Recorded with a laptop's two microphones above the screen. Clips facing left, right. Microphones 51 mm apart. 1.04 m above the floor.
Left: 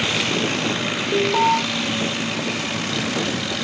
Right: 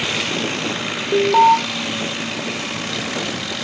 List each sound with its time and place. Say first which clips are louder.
1.1 s an alarm: right 6 dB; 35° right (ahead or behind), 1.5 m